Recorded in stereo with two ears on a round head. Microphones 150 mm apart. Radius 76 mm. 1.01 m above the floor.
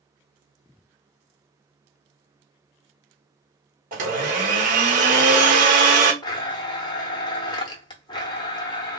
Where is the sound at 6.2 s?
25° left (ahead or behind), 0.7 m.